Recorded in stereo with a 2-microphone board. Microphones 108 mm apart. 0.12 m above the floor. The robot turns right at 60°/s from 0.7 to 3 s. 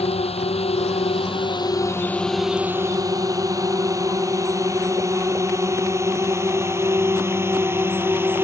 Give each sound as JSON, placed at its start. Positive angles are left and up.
{"t": 0.0, "sound": "a drone", "side_deg": 70}